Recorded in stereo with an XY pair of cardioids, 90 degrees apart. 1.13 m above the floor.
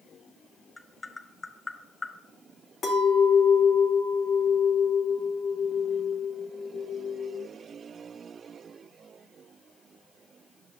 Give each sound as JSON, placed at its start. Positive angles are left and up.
{"t": 0.8, "sound": "tapping", "azimuth_deg": 20, "distance_m": 1.1}
{"t": 2.8, "sound": "a clink", "azimuth_deg": 70, "distance_m": 2.5}